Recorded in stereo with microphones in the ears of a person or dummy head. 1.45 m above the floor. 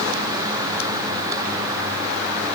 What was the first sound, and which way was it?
Only background noise.